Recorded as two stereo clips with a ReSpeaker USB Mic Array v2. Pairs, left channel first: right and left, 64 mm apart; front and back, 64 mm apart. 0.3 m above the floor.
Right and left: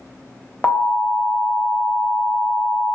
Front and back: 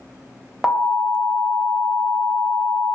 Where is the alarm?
90° right, 0.6 m.